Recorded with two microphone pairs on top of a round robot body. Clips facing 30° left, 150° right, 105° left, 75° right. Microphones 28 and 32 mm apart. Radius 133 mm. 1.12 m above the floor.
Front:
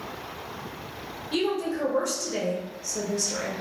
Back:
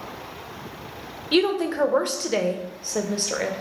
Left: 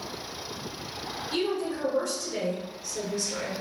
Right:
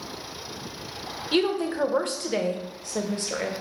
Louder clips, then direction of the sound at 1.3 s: Back 6 dB, right 5 dB; 120° right.